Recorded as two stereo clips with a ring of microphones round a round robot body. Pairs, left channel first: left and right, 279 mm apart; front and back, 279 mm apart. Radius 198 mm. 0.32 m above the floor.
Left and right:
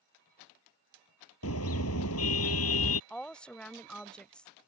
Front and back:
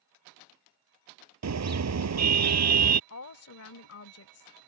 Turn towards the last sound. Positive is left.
turn(degrees=5)